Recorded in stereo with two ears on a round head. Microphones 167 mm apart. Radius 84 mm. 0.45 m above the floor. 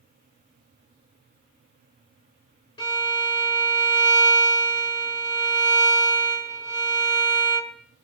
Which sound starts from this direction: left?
A violin, at 2.8 s.